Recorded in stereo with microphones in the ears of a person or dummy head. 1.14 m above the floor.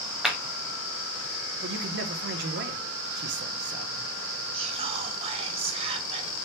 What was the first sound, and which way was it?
A clap, 5° right (ahead or behind).